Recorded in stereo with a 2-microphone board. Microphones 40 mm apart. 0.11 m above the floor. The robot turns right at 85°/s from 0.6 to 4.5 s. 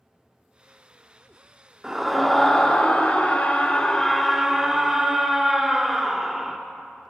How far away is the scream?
About 1.1 m.